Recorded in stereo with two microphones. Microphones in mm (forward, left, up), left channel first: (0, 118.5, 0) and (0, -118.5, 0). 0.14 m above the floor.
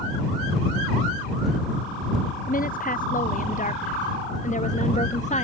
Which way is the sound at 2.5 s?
35° left (ahead or behind).